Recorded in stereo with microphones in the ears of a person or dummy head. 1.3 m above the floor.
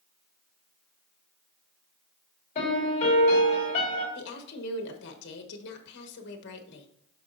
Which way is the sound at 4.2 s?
65° left (ahead or behind).